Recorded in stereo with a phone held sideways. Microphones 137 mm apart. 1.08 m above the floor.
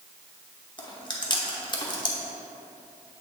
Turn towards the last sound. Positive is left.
turn(degrees=35)  # may be behind; listen again after turning